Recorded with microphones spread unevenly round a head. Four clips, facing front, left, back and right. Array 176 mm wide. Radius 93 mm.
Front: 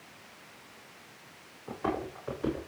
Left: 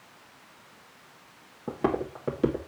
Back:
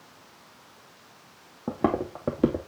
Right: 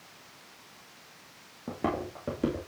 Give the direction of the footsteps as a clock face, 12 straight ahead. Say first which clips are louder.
Left 4 dB, back 7 dB; 6 o'clock.